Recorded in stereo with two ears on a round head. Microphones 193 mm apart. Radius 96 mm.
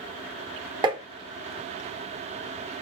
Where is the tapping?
20° right (ahead or behind), 0.7 m.